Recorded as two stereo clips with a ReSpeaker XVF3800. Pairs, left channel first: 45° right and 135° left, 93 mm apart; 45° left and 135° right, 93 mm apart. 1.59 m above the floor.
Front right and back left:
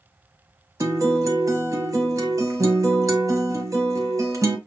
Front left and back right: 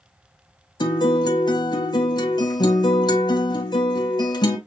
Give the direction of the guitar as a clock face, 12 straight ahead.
9 o'clock.